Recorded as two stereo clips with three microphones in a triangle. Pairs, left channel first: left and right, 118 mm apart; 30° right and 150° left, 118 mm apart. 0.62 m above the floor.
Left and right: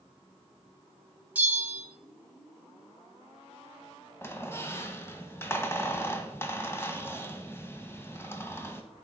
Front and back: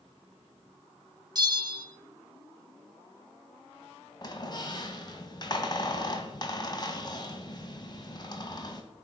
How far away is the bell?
About 1.9 m.